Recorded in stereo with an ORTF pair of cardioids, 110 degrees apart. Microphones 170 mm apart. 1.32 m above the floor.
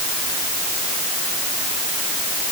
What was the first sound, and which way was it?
Only background noise.